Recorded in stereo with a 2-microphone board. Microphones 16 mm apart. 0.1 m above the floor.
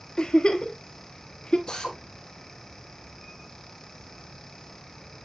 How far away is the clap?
No clap in this recording.